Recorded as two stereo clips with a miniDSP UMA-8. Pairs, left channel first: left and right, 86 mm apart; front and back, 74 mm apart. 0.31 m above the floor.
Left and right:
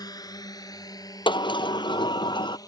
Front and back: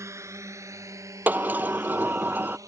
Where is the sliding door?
115° left.